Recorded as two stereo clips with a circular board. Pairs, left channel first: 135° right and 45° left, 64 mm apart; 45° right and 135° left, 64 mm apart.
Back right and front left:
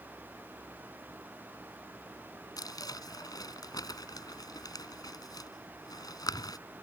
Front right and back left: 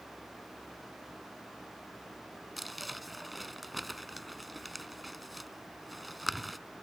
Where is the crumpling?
135° right.